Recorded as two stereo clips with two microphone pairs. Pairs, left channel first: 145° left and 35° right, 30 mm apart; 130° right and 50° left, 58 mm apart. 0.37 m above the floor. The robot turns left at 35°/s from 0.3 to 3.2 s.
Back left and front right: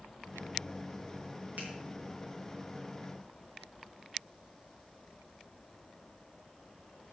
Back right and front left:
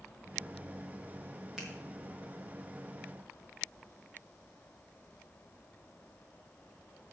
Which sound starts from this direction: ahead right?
A finger snap, at 1.6 s.